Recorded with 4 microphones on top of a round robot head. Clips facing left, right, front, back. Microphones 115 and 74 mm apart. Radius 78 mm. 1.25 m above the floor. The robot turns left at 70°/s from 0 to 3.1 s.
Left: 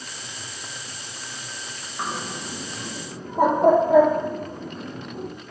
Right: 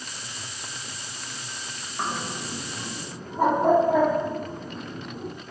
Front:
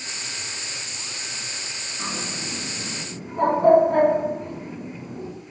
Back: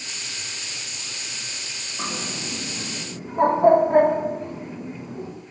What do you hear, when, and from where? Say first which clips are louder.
2.0 s a bird: even, back 1 dB; 170° right, 0.6 m; by 5.3 s 115° left, 0.6 m